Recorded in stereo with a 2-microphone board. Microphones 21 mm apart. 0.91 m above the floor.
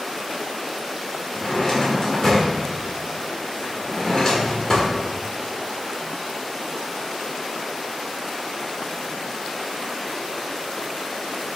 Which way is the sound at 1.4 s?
30° left (ahead or behind).